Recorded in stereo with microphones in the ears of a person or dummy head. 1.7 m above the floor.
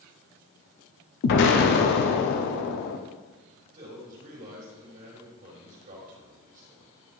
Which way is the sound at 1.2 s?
60° left (ahead or behind).